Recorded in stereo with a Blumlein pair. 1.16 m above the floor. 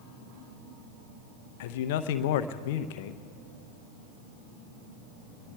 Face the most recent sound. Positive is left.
turn(degrees=50)